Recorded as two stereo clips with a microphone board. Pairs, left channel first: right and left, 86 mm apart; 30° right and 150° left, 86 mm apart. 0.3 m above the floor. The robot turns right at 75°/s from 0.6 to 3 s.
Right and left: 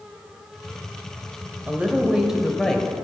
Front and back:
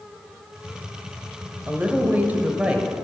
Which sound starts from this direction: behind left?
A woman speaking, at 1.7 s.